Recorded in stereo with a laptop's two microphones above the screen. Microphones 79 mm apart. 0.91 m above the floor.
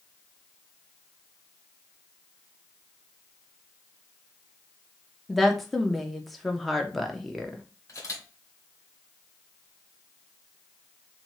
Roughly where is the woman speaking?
Centre.